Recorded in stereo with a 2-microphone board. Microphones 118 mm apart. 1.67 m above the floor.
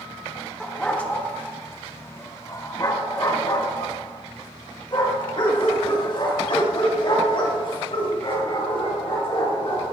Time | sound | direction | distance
0.6 | a dog barking | 5° left (ahead or behind) | 1.3 m